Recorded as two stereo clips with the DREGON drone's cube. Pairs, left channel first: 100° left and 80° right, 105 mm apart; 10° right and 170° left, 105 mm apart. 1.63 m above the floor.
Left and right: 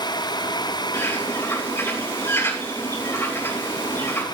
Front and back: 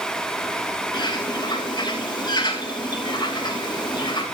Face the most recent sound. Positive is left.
turn(degrees=35)